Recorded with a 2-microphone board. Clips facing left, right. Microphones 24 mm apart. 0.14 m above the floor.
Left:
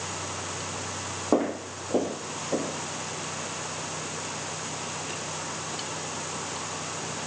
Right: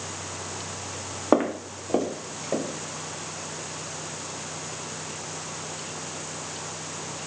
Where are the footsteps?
50° right (ahead or behind), 0.9 m.